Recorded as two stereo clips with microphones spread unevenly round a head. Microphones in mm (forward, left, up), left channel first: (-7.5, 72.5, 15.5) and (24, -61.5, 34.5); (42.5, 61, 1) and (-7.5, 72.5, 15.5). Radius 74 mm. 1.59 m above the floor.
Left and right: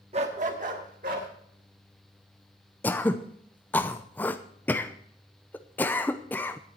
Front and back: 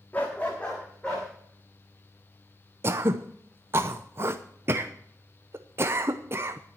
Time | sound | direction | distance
0.1 | a dog barking | 95° right | 1.3 m
2.8 | throat clearing | 175° right | 0.6 m